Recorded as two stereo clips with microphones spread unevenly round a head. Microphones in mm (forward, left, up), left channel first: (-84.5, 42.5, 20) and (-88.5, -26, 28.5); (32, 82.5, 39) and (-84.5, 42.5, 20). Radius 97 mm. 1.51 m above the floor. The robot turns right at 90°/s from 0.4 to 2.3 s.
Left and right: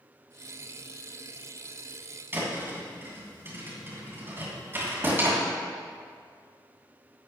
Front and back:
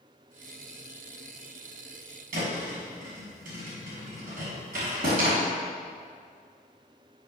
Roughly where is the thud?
Behind right.